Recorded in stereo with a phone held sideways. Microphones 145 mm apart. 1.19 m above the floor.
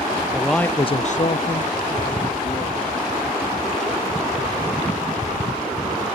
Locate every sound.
0.3 s a man speaking: 5° right (ahead or behind); by 3.0 s 50° left (ahead or behind)